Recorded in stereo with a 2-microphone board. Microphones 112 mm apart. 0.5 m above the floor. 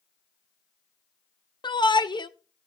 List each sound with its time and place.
1.6 s a shout: 45° left (ahead or behind), 1.0 m